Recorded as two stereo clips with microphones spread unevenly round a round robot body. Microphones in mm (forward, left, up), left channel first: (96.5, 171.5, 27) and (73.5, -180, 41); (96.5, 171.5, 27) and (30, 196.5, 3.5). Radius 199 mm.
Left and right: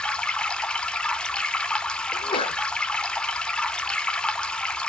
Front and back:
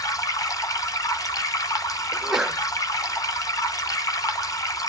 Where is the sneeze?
140° left, 0.8 m.